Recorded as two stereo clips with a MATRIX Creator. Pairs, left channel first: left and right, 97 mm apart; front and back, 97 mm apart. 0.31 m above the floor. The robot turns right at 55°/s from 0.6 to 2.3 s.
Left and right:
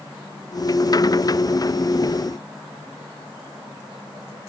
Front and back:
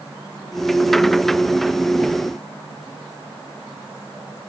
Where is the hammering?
No hammering in this recording.